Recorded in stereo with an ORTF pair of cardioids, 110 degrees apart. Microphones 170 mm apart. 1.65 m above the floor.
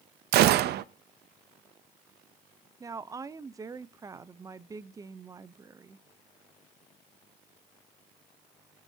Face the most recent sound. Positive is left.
turn(degrees=-20)